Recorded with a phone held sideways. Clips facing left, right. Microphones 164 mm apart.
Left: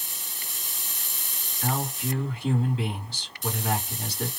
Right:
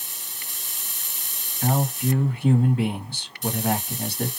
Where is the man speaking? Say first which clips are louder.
Right 6 dB; 55° right (ahead or behind), 1.9 m.